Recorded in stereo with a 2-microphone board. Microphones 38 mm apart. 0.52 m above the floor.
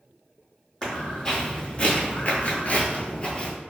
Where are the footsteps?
20° left (ahead or behind), 1.4 m; by 3.5 s 25° left (ahead or behind), 0.8 m.